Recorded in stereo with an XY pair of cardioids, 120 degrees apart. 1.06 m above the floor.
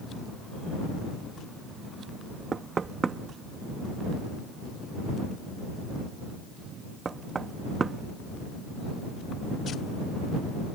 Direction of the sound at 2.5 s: 30° right.